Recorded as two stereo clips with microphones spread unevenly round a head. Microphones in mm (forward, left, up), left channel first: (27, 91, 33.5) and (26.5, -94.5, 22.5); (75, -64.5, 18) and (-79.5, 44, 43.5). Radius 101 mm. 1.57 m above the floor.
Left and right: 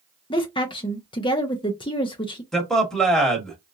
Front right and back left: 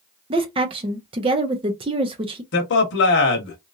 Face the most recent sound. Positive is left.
turn(degrees=0)